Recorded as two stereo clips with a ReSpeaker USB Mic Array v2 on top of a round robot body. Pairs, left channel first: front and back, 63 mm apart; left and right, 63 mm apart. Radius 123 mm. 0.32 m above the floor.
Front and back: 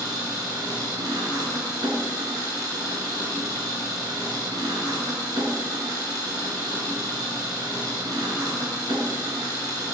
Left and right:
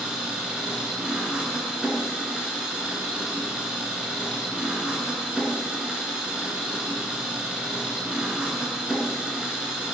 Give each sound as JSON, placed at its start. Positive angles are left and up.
{"t": 0.0, "sound": "an engine running", "azimuth_deg": -165, "distance_m": 2.0}